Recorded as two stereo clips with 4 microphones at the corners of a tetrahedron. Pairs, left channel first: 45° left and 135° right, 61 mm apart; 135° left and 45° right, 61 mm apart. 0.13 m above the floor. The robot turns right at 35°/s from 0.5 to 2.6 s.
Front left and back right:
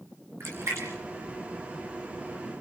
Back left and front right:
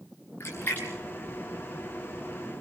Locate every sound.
0.4 s a splash: 175° right, 4.5 m; by 0.9 s 165° right, 4.5 m